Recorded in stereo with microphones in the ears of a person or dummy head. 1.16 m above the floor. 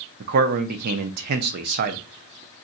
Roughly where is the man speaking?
Right.